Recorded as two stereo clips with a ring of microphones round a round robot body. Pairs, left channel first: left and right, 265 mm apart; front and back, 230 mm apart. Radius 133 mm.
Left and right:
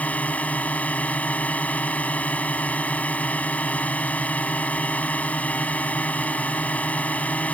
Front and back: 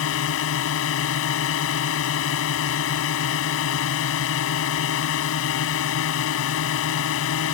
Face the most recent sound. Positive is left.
turn(degrees=5)